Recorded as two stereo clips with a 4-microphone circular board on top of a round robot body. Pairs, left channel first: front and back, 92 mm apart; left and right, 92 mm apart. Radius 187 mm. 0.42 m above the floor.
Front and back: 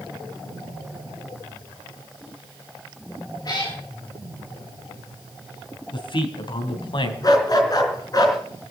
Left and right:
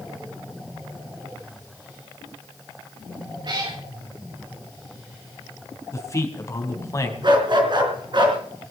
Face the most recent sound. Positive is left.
turn(degrees=-50)